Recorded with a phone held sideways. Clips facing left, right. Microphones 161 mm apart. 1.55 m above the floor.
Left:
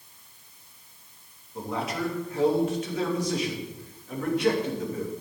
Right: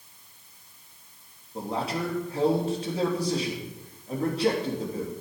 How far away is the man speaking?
About 3.5 m.